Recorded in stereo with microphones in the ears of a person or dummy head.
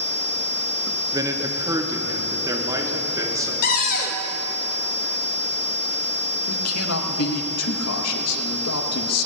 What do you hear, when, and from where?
1.1 s a man speaking: 15° right (ahead or behind), 1.0 m
3.6 s a cupboard door: 50° left (ahead or behind), 1.0 m
6.5 s a man speaking: 90° left, 0.9 m